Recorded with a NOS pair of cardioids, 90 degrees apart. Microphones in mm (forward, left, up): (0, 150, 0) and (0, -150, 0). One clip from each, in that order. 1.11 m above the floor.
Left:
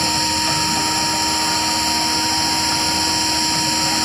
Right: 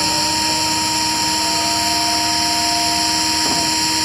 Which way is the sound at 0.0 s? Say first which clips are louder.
Right 1 dB; 10° right.